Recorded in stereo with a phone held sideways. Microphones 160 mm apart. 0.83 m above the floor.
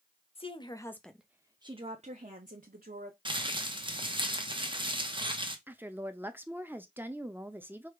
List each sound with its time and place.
0.3 s a woman speaking: 40° left (ahead or behind), 0.8 m; by 3.1 s 65° right (ahead or behind), 1.4 m
3.2 s crumpling: 30° right (ahead or behind), 1.0 m
5.7 s a woman speaking: 15° right (ahead or behind), 0.5 m